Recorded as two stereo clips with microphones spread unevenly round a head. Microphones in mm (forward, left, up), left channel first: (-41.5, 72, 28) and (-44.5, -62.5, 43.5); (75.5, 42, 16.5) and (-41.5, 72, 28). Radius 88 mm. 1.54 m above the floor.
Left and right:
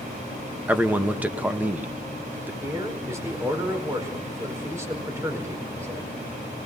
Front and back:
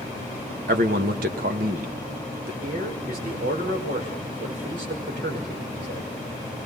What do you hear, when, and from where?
0.7 s a man speaking: 170° right, 1.6 m
2.6 s a man speaking: 160° right, 4.5 m